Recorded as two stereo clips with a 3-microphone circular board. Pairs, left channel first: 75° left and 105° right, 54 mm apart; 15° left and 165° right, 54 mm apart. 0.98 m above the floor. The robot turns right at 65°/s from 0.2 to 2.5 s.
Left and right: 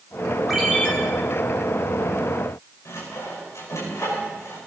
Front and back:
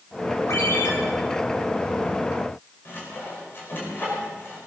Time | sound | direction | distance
0.5 | a ringtone | 20° right | 4.5 m
2.9 | sawing | 60° left | 5.5 m